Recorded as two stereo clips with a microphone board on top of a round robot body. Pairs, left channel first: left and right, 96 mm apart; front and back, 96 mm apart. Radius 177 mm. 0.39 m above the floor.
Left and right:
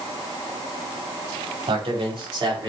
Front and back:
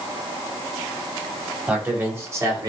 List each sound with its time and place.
1.7 s a man speaking: 110° right, 3.5 m; by 2.7 s 130° right, 3.5 m